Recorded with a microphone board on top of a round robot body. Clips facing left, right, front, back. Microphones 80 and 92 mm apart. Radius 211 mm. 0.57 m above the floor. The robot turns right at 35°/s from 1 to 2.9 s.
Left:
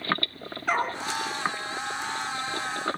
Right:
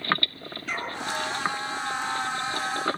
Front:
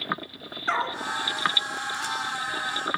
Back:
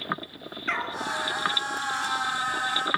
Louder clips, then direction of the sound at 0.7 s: Left 7 dB, front 4 dB; 60° left.